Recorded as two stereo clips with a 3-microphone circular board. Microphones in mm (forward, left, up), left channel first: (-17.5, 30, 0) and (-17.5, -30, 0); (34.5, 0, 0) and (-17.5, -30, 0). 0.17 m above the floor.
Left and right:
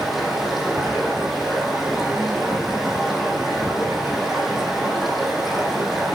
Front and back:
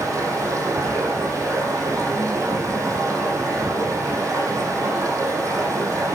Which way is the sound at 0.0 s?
Straight behind.